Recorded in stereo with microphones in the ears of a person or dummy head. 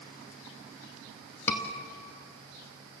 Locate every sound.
1.5 s a scream: 10° left (ahead or behind), 2 m